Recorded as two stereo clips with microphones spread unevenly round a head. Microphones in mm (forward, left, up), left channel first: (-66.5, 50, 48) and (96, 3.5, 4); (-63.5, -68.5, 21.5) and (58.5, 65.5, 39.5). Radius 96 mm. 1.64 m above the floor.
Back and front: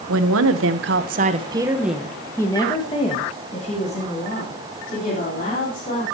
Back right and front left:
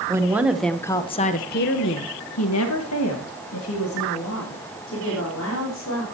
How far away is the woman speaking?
About 1.5 m.